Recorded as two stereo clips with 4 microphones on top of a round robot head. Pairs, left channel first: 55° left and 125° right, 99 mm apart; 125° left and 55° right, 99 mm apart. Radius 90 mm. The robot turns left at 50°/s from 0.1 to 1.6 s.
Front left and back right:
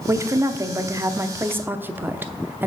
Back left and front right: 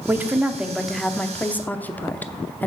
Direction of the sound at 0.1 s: 100° right.